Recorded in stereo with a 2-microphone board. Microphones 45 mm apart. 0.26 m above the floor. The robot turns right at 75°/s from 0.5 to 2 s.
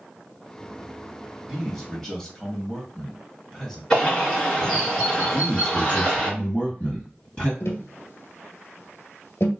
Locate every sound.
1.4 s a man speaking: 15° right, 1.1 m; by 3.8 s 25° left, 1.1 m
3.9 s a bird: 10° left (ahead or behind), 2 m
5.3 s a man speaking: 25° left (ahead or behind), 1.9 m
7.6 s tapping: 85° left, 1.1 m